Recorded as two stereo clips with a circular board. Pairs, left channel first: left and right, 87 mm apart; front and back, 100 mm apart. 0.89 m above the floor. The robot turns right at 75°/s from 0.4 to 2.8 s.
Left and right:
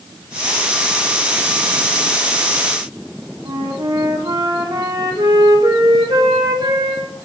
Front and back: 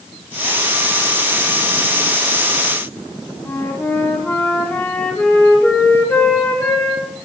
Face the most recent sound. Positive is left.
turn(degrees=-70)